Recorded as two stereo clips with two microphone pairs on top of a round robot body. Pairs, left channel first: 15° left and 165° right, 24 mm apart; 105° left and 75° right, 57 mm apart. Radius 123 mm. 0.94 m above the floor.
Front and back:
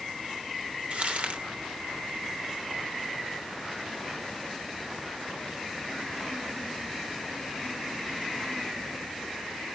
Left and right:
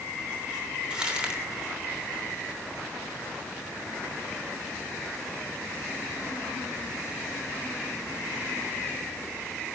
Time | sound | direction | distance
0.9 | crumpling | 150° right | 3 m